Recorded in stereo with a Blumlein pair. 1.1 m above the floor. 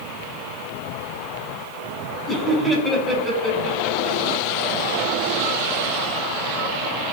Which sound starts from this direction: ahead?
Laughter, at 2.3 s.